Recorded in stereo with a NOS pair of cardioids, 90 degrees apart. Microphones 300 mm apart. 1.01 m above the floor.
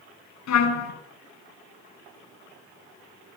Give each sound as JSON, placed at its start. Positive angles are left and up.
{"t": 0.5, "sound": "a trumpet", "azimuth_deg": 65, "distance_m": 3.5}